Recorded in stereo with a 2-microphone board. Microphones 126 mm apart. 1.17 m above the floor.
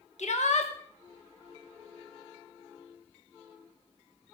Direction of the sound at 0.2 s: 65° left (ahead or behind).